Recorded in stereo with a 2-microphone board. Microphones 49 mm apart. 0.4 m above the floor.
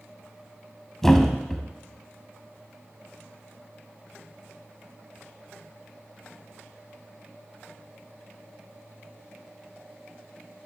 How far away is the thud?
About 0.8 m.